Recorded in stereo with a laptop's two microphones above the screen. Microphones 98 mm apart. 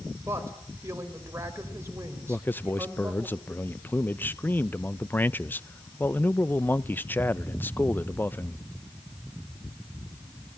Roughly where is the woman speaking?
Right.